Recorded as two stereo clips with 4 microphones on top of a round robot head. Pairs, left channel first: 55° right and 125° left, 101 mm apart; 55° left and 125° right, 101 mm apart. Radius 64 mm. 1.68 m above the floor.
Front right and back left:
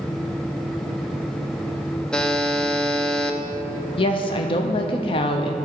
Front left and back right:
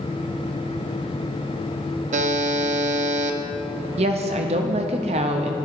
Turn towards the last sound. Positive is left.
turn(degrees=-95)